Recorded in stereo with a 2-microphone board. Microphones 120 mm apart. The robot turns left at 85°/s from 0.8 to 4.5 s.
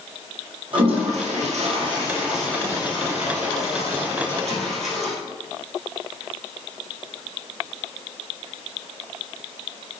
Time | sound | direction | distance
0.7 | a toilet flushing | 45° right (ahead or behind) | 2.5 m